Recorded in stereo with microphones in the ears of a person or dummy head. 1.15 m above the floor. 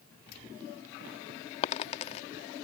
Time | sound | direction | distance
1.6 | a dropped coin | 35° left (ahead or behind) | ?